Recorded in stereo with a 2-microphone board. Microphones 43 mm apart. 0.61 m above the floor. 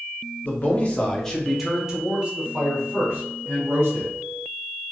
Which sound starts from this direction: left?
A man speaking, at 0.4 s.